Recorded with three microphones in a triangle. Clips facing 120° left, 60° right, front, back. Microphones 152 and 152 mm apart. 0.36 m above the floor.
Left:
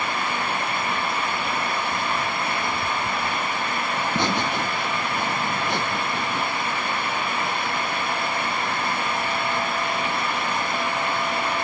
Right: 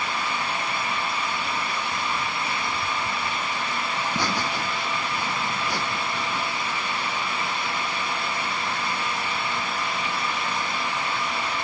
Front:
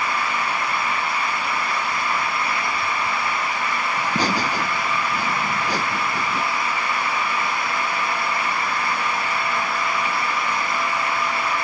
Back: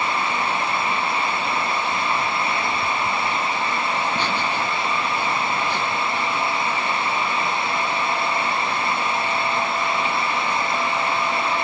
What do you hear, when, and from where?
4.0 s laughter: 50° left